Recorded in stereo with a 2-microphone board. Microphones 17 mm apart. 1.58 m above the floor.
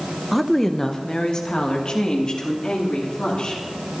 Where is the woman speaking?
5° right (ahead or behind), 0.8 m; by 3.6 s 50° left (ahead or behind), 3.5 m.